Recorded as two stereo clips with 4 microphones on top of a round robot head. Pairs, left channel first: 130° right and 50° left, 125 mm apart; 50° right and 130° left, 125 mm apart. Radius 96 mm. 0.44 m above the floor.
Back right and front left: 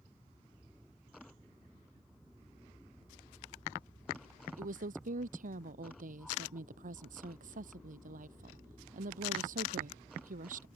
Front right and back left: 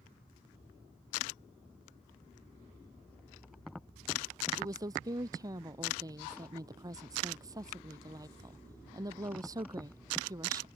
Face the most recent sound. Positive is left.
turn(degrees=65)